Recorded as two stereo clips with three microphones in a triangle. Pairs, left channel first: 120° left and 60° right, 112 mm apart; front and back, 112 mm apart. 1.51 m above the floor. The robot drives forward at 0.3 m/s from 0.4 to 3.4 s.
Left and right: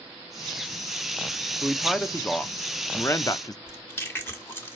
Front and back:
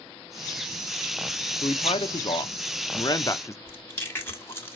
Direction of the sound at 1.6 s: 30° left.